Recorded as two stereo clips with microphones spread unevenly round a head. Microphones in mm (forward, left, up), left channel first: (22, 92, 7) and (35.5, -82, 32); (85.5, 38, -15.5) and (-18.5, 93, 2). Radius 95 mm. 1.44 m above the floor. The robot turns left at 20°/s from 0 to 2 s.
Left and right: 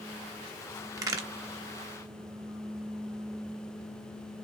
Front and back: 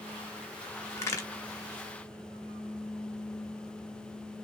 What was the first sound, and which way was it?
A crack, 85° right.